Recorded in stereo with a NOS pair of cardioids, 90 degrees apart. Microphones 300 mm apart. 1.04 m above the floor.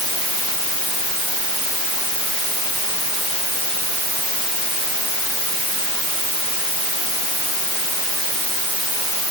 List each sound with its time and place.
Only background noise.